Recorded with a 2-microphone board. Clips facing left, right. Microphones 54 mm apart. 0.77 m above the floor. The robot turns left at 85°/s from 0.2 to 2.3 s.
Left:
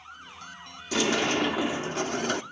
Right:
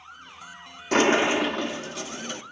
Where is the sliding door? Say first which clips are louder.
Right 5 dB; 130° right, 0.7 m; by 2.4 s 110° left, 0.7 m.